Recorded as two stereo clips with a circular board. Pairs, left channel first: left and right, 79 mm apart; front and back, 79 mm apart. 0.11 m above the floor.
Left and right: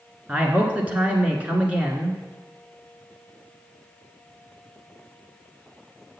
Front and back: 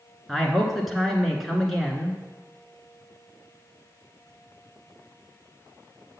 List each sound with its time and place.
0.3 s a man speaking: 85° right, 1.1 m